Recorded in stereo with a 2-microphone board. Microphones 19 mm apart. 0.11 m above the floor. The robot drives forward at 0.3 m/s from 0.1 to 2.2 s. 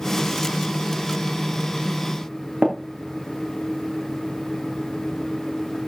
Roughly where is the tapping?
Right.